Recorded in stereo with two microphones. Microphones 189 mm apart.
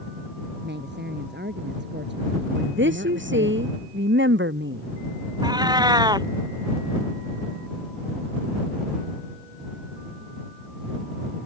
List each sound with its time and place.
0.6 s a woman speaking: 65° right (ahead or behind)
2.5 s a woman speaking: 85° right
5.4 s a cat meowing: 20° right (ahead or behind)